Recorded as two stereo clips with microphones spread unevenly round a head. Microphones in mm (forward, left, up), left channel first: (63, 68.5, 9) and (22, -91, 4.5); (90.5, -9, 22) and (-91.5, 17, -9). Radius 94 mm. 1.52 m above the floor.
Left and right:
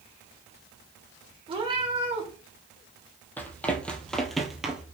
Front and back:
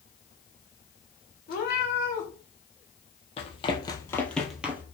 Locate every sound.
1.5 s a cat meowing: 45° right, 2.5 m
3.4 s running footsteps: 5° left, 1.9 m; by 4.8 s 130° right, 1.5 m